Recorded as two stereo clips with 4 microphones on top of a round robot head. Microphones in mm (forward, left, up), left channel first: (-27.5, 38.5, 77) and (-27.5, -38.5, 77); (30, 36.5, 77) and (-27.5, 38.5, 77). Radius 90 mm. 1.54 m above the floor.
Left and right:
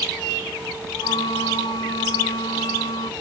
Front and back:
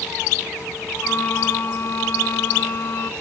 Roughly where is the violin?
Ahead left.